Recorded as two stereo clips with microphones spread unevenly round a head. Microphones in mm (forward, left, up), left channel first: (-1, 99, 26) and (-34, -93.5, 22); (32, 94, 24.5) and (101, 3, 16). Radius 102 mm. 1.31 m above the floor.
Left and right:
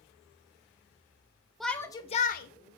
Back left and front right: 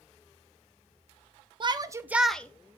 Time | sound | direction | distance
1.6 | a shout | 10° right | 0.5 m